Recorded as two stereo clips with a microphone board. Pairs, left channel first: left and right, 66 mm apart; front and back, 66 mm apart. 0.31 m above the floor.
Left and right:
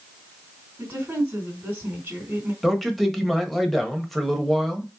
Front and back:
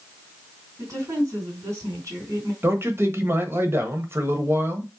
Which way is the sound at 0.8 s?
155° right.